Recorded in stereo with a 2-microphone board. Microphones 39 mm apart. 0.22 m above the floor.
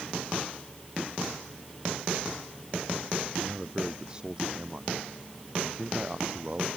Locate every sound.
3.4 s a man speaking: 20° right (ahead or behind); by 6.7 s 30° right (ahead or behind)